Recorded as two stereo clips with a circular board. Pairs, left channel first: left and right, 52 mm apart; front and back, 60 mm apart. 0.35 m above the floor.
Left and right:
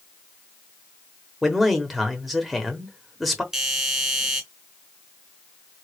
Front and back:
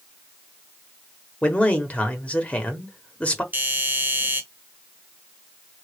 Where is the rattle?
No rattle in this recording.